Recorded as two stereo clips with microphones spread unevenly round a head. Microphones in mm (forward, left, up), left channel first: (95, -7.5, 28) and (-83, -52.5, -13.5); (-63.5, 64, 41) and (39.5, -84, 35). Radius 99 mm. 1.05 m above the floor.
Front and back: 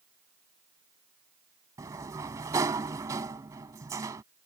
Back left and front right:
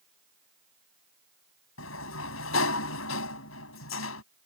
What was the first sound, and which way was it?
A sliding door, 120° left.